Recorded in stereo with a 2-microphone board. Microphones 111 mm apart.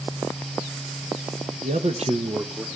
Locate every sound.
1.6 s a man speaking: 80° right, 1.2 m; by 2.6 s 5° right (ahead or behind), 1.0 m